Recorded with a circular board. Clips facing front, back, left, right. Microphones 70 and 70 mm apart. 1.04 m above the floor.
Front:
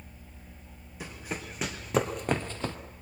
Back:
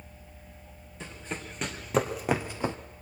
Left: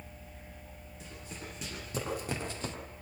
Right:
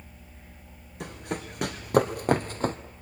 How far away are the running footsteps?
About 3.5 m.